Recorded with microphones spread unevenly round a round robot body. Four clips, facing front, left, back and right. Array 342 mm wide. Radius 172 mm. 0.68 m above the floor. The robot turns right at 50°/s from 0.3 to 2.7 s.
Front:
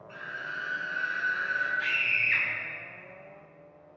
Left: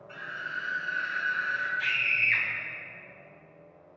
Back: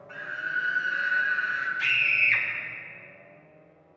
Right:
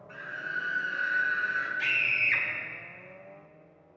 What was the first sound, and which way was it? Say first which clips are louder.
A scream: right 1 dB, back 6 dB; 155° left.